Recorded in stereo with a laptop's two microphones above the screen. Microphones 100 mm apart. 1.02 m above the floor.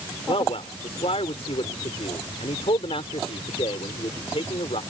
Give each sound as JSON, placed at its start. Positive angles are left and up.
{"t": 0.3, "sound": "a man speaking", "side_deg": 80}